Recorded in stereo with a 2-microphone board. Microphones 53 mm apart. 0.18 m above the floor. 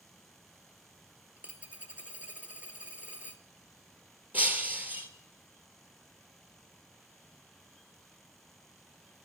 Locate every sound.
1.4 s a dropped coin: 30° right (ahead or behind), 0.7 m
4.3 s breaking glass: 35° right (ahead or behind), 1.8 m